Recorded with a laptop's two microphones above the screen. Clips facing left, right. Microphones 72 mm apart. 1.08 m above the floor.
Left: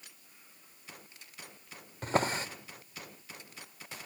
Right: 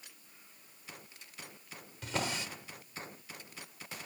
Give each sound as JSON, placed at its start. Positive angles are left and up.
{"t": 2.0, "sound": "a drawer", "side_deg": 40, "distance_m": 1.0}